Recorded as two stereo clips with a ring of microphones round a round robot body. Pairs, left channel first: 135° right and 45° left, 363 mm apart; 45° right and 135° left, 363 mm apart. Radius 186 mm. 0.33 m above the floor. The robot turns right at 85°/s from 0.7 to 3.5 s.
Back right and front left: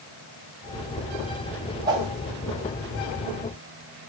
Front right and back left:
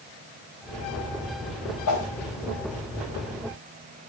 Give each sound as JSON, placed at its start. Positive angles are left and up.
{"t": 1.9, "sound": "a whoosh", "azimuth_deg": -35, "distance_m": 1.3}